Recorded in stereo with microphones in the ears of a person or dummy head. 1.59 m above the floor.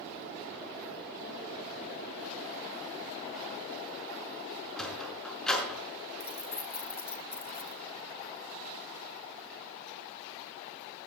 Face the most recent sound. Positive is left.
turn(degrees=15)  # may be behind; listen again after turning